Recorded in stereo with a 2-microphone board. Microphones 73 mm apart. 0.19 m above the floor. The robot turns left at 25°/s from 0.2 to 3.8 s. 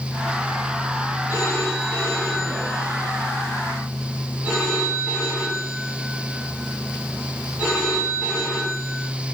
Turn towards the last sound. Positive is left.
turn(degrees=-15)